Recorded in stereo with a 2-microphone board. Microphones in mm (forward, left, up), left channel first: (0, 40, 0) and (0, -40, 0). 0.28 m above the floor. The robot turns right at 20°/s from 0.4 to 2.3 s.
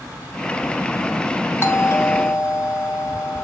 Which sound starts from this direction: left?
A doorbell, at 1.6 s.